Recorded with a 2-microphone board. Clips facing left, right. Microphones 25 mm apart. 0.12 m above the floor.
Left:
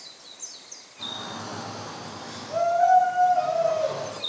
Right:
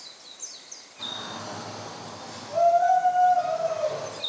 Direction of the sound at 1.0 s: 5° right (ahead or behind).